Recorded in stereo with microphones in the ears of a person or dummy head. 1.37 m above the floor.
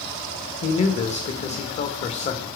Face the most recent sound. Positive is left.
turn(degrees=40)  # may be behind; listen again after turning